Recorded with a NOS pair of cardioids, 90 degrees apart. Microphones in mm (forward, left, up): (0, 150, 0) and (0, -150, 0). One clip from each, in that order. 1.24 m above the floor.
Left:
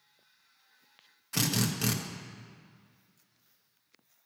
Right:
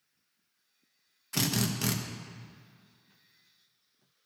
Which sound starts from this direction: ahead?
A drill, at 1.3 s.